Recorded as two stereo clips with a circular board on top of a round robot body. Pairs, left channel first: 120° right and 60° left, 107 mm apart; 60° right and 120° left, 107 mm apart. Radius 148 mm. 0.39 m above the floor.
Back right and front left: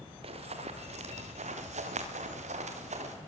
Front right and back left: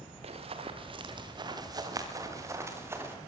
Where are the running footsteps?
90° left, 3 m; by 3.1 s 50° left, 5.5 m.